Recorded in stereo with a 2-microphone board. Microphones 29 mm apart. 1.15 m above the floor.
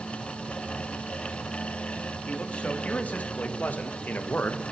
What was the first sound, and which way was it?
A man speaking, 45° left (ahead or behind).